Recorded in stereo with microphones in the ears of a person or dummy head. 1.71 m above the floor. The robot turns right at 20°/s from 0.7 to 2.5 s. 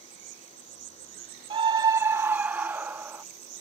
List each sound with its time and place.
0.0 s an insect: 105° right; by 3.6 s 70° right
1.5 s a scream: 30° right (ahead or behind); by 3.2 s 10° right (ahead or behind)